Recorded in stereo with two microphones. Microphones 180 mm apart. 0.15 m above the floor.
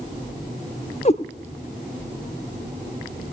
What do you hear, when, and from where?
1.1 s a cat meowing: 40° left (ahead or behind), 0.9 m